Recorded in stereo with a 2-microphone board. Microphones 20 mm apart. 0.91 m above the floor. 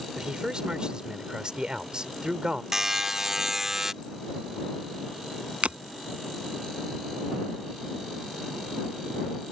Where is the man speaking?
45° right (ahead or behind).